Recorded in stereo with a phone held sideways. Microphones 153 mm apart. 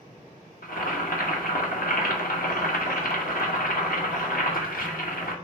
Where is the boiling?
65° left (ahead or behind), 1.0 m.